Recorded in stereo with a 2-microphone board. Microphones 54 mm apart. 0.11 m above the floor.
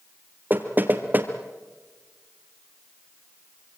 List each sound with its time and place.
0.5 s knocking: 35° right (ahead or behind), 2 m